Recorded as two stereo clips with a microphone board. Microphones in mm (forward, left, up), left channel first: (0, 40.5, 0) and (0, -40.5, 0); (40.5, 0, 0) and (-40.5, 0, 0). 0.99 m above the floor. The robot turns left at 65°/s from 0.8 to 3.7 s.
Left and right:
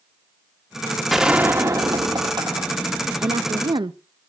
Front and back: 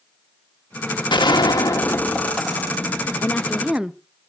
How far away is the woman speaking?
About 0.5 m.